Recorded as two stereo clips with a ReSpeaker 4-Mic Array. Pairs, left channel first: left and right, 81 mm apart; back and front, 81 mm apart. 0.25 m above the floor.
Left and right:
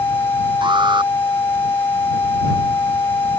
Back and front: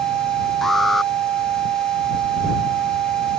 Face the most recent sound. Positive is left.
turn(degrees=-90)